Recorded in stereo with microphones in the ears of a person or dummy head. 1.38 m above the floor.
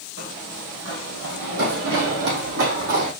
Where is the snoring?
No snoring in this recording.